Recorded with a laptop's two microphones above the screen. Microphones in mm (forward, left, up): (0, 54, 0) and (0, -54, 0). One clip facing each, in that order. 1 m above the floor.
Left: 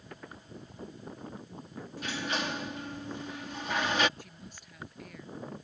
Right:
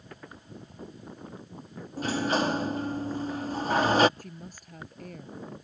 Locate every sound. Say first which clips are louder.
2.0 s a sliding door: right 8 dB; 40° right (ahead or behind)
4.2 s a woman speaking: right 5 dB; 45° right (ahead or behind)